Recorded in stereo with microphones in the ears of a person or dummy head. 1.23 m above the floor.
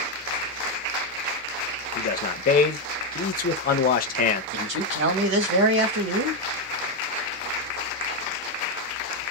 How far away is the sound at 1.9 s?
About 0.7 m.